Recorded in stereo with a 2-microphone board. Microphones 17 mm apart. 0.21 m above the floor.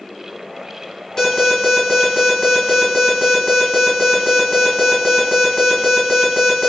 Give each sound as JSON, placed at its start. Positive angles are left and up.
{"t": 1.2, "sound": "an alarm", "side_deg": 35, "distance_m": 1.3}